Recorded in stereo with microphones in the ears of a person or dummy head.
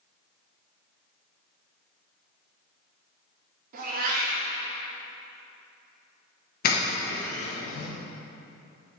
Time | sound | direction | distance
3.7 | a cat meowing | 50° right (ahead or behind) | 1.4 m
6.6 | a doorbell | 45° left (ahead or behind) | 1.2 m